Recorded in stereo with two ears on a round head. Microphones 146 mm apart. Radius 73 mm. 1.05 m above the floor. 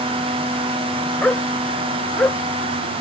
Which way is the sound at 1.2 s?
5° left (ahead or behind).